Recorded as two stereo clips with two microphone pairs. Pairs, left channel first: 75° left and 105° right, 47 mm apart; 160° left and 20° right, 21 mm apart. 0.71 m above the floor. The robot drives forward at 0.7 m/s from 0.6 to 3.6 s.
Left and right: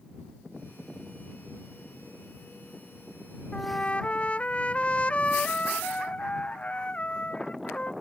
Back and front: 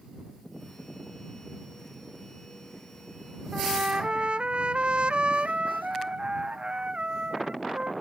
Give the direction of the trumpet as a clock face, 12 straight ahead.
12 o'clock.